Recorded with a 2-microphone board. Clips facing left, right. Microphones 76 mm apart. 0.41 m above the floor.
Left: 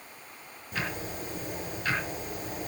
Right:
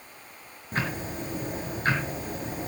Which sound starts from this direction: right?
Ticking, at 0.7 s.